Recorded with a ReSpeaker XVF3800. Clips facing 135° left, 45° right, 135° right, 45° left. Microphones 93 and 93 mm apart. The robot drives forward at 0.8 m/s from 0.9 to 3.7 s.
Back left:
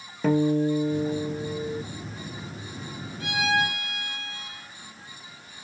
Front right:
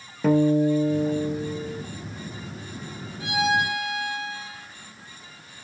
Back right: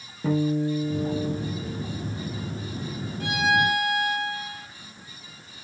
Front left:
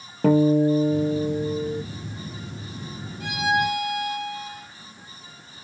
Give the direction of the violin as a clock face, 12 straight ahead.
4 o'clock.